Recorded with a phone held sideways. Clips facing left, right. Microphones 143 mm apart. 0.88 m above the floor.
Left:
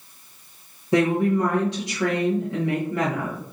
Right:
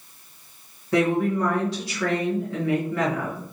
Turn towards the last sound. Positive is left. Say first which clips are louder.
# left 2 dB
turn(degrees=20)  # may be behind; listen again after turning